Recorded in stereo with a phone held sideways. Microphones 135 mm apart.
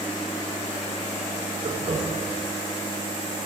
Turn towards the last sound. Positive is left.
turn(degrees=-70)  # may be behind; listen again after turning